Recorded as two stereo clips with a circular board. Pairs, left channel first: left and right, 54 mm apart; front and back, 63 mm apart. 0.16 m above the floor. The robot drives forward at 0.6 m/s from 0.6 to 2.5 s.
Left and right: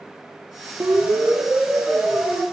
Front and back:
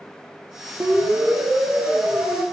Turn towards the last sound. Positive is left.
turn(degrees=-150)